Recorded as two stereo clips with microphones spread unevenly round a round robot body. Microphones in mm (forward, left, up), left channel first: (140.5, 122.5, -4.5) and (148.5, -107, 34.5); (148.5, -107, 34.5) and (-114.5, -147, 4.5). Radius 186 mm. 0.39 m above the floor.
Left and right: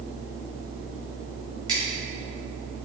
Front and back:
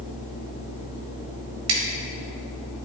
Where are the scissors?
170° right, 1.5 m.